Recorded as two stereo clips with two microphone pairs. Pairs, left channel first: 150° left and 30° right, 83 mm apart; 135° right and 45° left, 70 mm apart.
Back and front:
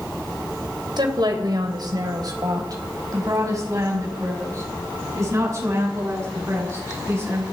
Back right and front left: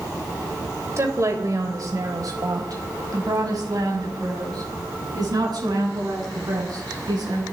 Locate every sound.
1.0 s a woman speaking: straight ahead, 3 m; by 7.4 s 25° left, 9 m